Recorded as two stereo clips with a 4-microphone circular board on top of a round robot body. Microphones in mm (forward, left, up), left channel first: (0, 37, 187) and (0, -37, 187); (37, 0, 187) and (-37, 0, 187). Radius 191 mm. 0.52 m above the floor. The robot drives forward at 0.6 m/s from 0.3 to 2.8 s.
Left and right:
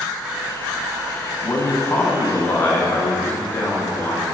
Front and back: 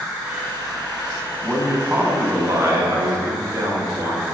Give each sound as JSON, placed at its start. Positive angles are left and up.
{"t": 1.4, "sound": "a man speaking", "azimuth_deg": 95, "distance_m": 1.2}